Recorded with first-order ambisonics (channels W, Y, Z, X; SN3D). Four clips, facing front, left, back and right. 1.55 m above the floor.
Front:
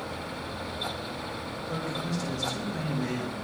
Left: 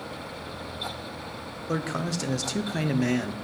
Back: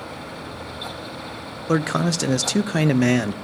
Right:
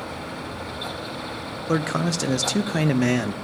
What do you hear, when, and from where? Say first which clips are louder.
1.7 s a man speaking: right 6 dB, back 12 dB; 160° right, 0.8 m